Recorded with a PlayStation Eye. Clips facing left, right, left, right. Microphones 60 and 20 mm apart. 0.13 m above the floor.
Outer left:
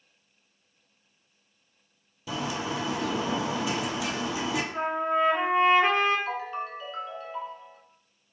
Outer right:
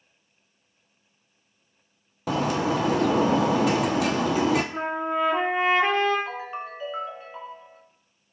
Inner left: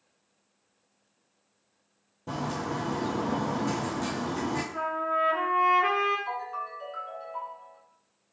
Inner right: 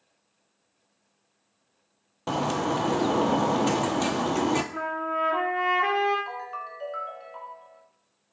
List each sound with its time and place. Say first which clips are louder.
2.3 s a bird: outer right 7 dB, inner right 6 dB; 70° right (ahead or behind), 0.5 m
4.7 s a trumpet: even, even; 40° right (ahead or behind), 2.5 m
6.3 s a ringtone: outer left 1 dB, inner left 1 dB; 20° right (ahead or behind), 1.3 m